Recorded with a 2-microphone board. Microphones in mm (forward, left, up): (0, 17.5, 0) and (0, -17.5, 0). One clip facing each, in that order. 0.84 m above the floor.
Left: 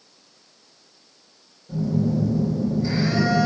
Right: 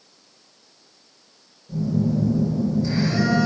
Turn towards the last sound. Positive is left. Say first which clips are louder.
# even
turn(degrees=10)  # may be behind; listen again after turning